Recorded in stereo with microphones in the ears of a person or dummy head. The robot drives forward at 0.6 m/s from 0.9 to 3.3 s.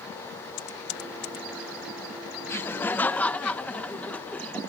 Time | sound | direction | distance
0.6 | typing on a keyboard | 70° left (ahead or behind) | ?
2.5 | laughter | 20° left (ahead or behind) | ?